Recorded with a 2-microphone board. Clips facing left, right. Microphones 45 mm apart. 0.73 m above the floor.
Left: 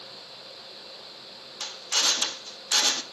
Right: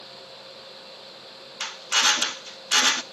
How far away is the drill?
About 1.0 m.